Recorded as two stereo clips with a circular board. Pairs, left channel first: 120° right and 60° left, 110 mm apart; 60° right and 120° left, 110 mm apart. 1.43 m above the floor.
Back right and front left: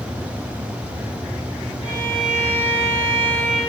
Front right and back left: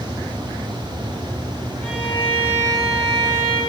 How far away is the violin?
About 6 m.